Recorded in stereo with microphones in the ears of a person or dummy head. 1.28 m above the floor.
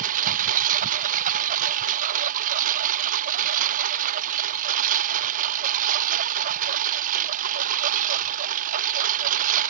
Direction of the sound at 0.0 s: 50° right (ahead or behind).